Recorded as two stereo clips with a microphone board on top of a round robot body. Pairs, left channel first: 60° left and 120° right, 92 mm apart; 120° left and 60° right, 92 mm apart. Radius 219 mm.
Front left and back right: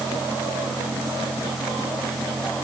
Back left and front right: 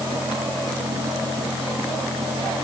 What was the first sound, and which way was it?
Only background noise.